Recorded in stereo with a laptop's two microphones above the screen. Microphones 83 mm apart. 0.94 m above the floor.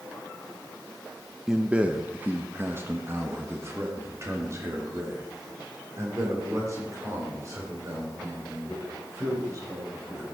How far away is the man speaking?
About 0.8 m.